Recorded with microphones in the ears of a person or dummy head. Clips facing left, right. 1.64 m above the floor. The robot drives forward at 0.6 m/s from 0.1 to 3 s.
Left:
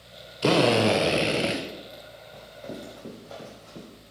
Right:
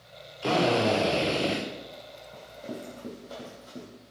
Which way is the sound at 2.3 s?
10° right (ahead or behind).